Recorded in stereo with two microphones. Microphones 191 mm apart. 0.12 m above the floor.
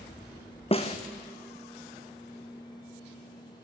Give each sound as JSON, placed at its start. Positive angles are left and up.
{"t": 0.7, "sound": "a snare drum", "side_deg": 30, "distance_m": 1.5}